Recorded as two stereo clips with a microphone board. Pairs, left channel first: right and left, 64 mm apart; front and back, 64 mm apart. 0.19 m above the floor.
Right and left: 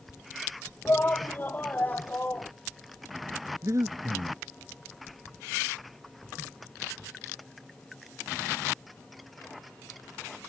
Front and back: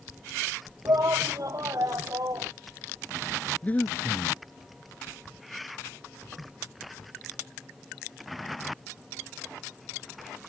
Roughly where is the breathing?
Ahead left.